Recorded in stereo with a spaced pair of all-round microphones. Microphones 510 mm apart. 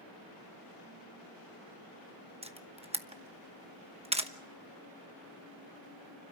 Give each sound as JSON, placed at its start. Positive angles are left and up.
{"t": 2.4, "sound": "a camera shutter", "side_deg": -10, "distance_m": 1.0}